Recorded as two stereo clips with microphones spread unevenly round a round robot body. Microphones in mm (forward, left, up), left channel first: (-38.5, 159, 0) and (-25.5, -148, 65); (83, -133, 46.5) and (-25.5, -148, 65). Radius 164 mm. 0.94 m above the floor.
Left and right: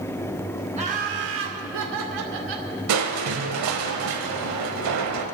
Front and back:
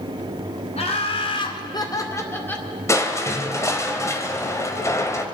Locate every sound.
0.8 s laughter: 15° right, 3 m; by 2.7 s 70° right, 3 m
2.9 s crushing: 60° right, 1.4 m